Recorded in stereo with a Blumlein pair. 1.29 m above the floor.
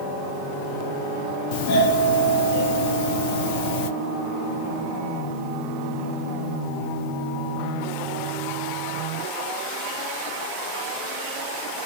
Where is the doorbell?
45° left, 1.1 m.